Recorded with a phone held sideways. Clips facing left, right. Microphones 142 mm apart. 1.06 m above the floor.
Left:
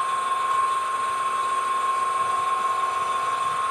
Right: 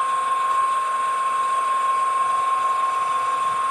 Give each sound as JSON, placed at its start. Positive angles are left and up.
{"t": 0.0, "sound": "a machine running", "side_deg": -10, "distance_m": 1.4}